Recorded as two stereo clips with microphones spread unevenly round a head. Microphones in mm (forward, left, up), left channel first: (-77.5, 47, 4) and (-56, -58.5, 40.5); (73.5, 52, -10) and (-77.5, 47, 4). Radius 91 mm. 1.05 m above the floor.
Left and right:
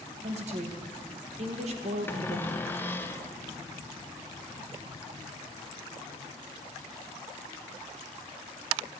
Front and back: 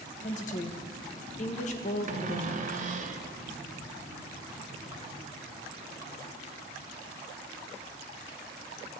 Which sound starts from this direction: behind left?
A cupboard door, at 2.1 s.